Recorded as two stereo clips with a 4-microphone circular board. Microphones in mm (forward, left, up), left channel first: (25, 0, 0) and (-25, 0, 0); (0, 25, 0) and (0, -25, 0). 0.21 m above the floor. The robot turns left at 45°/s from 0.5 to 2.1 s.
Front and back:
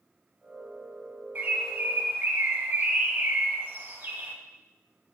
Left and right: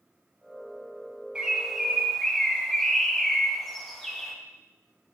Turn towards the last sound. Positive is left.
turn(degrees=170)